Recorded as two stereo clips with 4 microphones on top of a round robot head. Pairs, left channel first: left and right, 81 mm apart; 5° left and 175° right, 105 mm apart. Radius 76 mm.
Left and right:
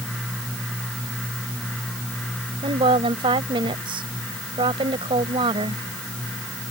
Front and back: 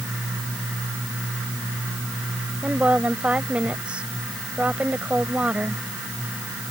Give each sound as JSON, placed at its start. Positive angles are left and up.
{"t": 2.6, "sound": "a woman speaking", "azimuth_deg": -95}